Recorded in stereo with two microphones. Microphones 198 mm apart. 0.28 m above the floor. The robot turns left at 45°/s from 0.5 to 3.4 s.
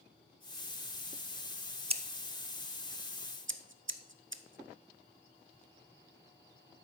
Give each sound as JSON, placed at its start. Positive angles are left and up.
{"t": 1.9, "sound": "scissors", "side_deg": -30, "distance_m": 0.6}